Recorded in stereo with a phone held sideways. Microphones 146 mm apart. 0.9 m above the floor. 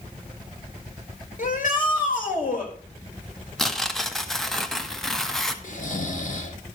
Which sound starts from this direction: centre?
Tearing paper, at 3.6 s.